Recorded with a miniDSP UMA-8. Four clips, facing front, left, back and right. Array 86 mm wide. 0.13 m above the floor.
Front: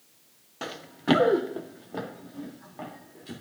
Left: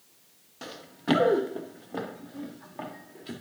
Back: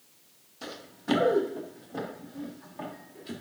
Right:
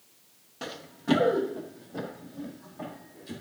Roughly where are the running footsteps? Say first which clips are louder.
Left 1 dB, front 8 dB; ahead.